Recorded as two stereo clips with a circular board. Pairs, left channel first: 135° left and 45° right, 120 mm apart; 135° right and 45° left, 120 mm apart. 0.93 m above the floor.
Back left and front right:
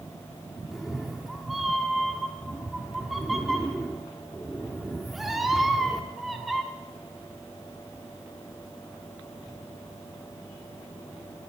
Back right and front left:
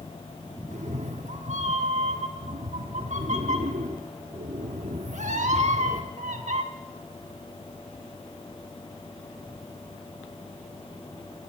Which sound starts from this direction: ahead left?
A cat meowing, at 0.7 s.